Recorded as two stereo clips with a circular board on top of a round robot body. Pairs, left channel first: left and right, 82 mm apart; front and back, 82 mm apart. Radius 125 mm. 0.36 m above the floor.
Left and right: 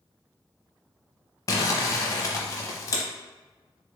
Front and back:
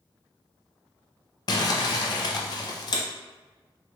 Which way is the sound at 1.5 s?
40° left.